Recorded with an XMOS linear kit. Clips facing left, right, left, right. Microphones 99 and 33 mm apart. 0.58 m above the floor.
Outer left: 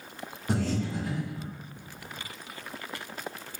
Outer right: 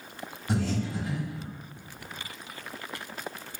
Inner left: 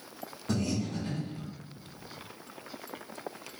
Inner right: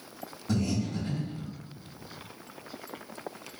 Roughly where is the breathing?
Left.